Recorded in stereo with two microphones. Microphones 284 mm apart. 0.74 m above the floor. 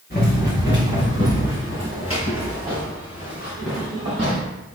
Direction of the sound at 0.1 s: 35° left (ahead or behind).